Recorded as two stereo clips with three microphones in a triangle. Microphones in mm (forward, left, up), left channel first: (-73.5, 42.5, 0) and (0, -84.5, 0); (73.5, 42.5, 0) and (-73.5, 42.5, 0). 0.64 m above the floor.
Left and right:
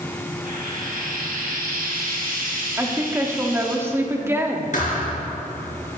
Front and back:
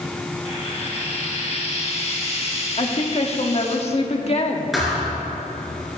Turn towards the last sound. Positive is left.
turn(degrees=90)